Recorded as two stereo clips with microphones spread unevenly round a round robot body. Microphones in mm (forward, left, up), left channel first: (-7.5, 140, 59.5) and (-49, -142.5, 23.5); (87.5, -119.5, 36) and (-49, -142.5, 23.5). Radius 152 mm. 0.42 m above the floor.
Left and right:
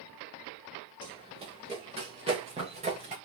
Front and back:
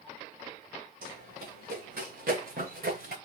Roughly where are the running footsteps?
Behind.